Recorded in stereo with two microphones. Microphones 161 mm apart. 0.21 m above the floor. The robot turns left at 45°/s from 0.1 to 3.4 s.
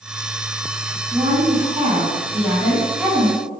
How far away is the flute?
No flute in this recording.